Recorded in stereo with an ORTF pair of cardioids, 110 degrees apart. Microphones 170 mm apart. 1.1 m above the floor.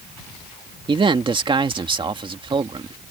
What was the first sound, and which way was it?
A man speaking, 30° right.